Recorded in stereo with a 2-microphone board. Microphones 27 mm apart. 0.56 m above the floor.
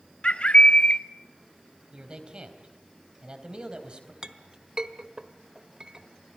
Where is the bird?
40° left (ahead or behind), 0.7 m.